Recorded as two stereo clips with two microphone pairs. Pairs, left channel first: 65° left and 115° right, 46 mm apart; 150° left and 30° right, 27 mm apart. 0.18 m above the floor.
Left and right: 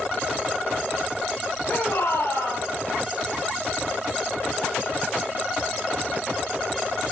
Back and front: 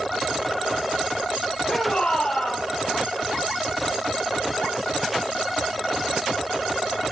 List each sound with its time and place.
1.7 s a shout: 100° left, 6 m